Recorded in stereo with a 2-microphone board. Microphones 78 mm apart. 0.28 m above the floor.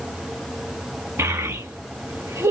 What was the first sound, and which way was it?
A child speaking, 40° right (ahead or behind).